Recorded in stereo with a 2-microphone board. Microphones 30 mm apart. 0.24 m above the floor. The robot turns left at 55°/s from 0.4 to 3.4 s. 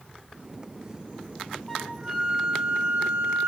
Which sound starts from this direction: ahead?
A flute, at 1.7 s.